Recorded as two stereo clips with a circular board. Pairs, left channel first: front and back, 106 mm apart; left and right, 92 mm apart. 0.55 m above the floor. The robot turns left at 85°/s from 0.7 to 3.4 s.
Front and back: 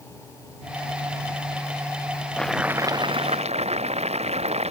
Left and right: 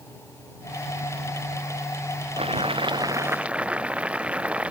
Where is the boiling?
80° right; by 4.7 s 165° right.